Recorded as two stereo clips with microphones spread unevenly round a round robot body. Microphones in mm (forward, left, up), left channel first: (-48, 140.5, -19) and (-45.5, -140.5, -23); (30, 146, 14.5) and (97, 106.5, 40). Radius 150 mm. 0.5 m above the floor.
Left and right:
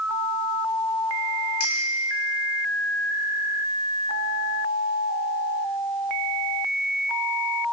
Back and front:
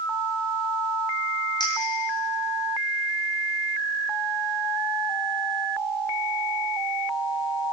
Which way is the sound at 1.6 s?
120° left.